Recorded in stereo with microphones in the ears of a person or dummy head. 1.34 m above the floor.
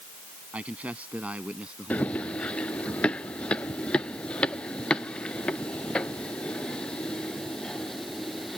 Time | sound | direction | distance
0.5 | a man speaking | 5° right (ahead or behind) | ?
1.9 | running footsteps | 10° left (ahead or behind) | ?